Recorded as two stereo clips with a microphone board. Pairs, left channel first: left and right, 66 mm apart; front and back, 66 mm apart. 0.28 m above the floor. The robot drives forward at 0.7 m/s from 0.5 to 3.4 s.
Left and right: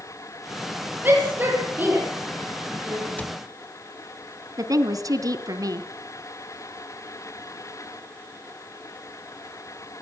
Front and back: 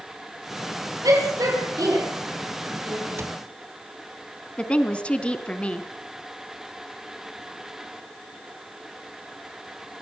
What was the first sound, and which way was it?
A shout, 145° right.